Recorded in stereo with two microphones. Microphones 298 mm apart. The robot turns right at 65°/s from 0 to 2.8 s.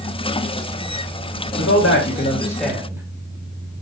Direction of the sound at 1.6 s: 110° left.